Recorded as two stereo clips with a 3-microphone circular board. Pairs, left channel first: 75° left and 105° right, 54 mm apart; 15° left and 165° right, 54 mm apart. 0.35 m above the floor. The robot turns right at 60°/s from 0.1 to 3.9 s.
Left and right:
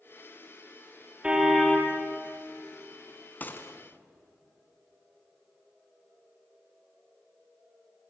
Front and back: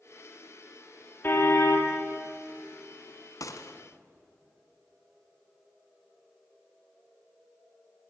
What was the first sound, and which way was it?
A car horn, 30° right.